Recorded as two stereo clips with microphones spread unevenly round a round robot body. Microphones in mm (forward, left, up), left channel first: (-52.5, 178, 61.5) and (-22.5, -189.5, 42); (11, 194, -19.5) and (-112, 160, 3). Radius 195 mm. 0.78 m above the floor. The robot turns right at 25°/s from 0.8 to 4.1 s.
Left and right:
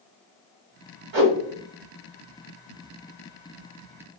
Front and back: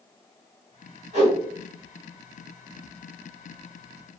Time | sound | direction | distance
1.1 | a whoosh | 90° right | 1.8 m